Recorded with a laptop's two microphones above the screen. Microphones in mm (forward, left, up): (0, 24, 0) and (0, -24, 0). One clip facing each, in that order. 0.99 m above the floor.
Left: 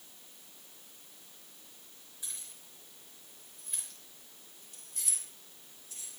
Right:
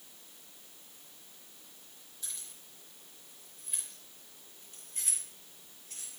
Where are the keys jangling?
15° left (ahead or behind), 4.5 m; by 6.2 s 70° right (ahead or behind), 3.5 m.